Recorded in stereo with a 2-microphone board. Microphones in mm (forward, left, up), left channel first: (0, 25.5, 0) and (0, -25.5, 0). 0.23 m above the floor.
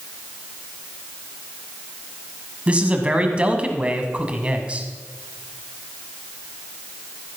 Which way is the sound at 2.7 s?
25° right (ahead or behind).